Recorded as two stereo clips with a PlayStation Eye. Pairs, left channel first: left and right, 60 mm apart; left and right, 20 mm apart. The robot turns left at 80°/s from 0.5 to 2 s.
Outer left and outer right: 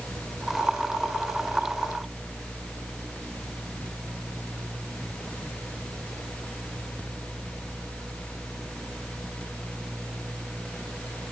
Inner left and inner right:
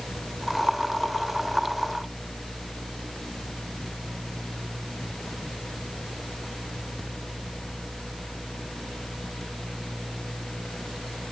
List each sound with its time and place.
Only background noise.